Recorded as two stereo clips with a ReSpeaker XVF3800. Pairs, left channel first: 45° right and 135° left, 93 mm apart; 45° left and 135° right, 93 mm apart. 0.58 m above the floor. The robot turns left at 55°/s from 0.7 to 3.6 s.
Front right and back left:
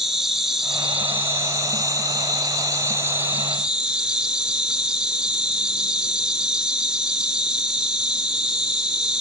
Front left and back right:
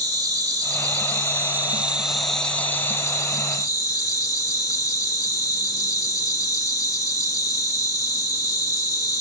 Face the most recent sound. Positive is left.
turn(degrees=55)